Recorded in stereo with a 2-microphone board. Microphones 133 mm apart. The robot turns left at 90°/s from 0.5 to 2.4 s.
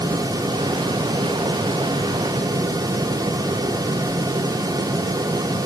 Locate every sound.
Only background noise.